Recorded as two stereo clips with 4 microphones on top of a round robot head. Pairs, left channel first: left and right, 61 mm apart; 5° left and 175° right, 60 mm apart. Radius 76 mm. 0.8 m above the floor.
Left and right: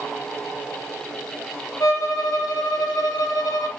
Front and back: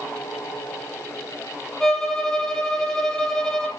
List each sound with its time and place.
1.8 s a violin: 85° left, 7 m